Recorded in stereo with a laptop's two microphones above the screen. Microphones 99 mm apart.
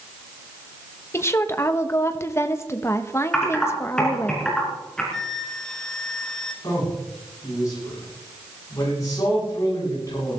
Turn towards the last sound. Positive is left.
turn(degrees=35)  # may be behind; listen again after turning